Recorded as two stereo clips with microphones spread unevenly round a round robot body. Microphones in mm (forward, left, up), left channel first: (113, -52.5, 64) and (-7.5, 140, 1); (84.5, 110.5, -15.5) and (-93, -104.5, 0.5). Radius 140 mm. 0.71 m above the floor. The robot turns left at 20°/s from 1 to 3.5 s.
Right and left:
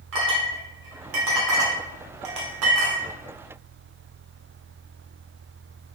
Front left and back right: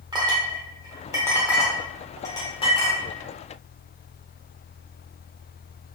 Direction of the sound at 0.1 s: 155° left.